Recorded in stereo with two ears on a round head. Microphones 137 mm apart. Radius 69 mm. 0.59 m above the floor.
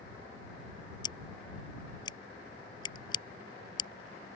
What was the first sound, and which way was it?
Scissors, 30° left (ahead or behind).